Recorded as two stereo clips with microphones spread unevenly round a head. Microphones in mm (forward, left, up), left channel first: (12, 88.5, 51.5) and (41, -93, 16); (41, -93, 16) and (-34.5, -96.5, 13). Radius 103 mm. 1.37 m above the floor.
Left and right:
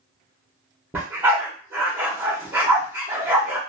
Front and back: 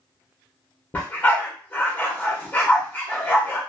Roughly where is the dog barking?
Ahead.